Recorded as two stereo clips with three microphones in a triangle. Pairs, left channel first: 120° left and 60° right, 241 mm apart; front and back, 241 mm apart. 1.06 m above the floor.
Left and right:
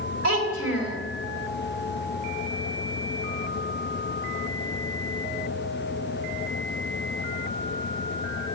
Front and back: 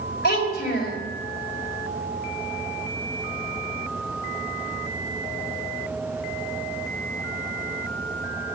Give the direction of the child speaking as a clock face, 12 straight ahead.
2 o'clock.